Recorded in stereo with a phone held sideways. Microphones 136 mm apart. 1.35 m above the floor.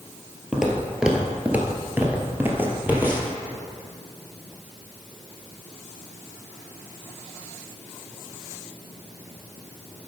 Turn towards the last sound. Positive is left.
turn(degrees=-15)  # may be behind; listen again after turning